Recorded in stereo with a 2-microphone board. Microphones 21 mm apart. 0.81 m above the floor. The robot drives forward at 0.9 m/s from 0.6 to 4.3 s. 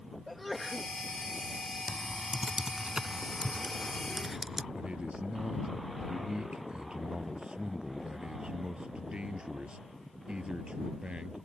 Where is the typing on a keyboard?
50° right (ahead or behind); by 4.7 s 20° right (ahead or behind).